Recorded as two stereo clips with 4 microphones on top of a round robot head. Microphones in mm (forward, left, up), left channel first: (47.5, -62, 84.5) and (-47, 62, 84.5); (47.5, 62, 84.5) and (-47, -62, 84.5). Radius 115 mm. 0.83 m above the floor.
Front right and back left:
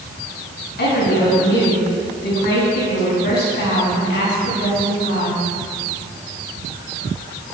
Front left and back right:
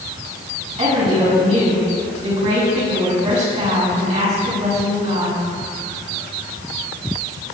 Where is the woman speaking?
80° right, 6.5 m.